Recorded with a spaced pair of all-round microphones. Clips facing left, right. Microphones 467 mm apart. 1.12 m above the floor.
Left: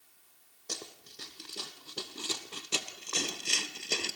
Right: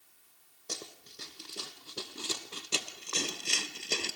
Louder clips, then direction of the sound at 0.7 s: Even; centre (ahead or behind).